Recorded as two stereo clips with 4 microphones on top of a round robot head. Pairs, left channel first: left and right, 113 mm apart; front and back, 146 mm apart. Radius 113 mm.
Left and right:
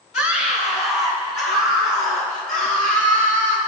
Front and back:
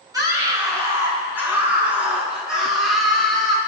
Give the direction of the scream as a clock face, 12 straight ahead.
8 o'clock.